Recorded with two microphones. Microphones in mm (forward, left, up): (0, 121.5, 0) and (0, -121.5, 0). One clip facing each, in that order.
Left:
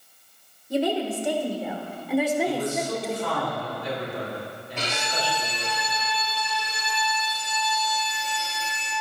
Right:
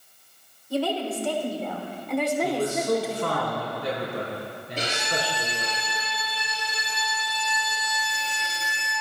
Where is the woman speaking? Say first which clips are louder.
Left 2 dB; 20° left (ahead or behind), 3 m; by 3.4 s 10° right (ahead or behind), 2 m.